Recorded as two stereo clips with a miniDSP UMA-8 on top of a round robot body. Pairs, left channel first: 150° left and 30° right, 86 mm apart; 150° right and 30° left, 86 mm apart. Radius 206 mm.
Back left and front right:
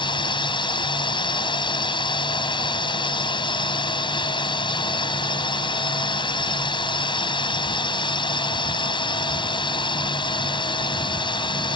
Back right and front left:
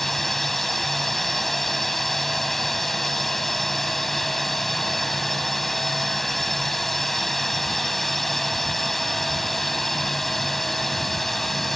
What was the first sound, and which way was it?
A drone, 120° left.